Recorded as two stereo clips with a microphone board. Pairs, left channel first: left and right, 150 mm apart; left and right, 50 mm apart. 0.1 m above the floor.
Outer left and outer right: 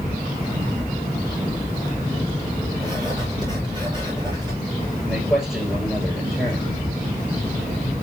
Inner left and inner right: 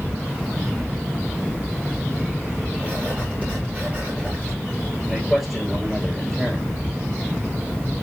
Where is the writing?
30° right (ahead or behind), 6.5 m.